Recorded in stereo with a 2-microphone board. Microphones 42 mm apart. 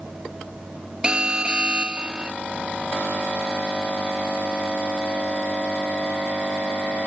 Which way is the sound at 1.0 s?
20° right (ahead or behind).